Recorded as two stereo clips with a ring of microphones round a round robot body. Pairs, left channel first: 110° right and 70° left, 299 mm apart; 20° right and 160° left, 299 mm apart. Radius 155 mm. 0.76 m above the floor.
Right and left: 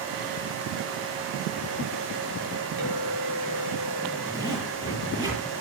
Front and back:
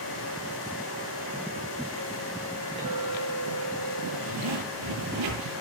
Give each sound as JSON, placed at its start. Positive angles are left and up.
{"t": 2.8, "sound": "a clink", "azimuth_deg": 85, "distance_m": 7.0}
{"t": 4.3, "sound": "a zipper", "azimuth_deg": 145, "distance_m": 8.0}